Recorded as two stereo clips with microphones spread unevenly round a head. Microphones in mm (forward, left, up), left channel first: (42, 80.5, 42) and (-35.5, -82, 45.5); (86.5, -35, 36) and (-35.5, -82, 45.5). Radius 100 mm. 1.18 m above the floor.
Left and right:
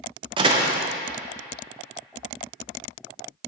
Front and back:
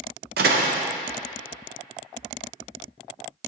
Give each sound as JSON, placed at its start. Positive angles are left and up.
{"t": 0.4, "sound": "a door slam", "azimuth_deg": 180, "distance_m": 0.6}